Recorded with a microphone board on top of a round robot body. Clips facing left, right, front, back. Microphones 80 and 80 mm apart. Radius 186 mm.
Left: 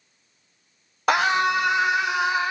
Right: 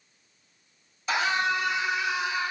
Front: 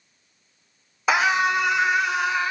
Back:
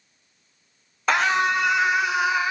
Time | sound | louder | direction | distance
1.1 | a scream | left 6 dB, front 1 dB | 85° left | 2.5 m